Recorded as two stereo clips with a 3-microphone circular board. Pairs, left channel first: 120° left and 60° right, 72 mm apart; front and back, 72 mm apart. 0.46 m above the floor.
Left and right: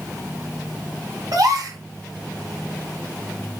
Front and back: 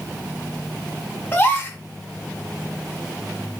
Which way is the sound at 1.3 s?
55° right.